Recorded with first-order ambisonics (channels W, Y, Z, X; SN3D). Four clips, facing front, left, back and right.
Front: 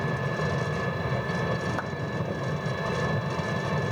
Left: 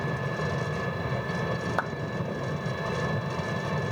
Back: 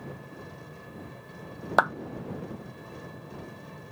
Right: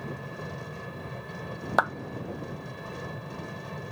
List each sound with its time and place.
0.0 s an engine running: 30° left
1.8 s a clap: 150° right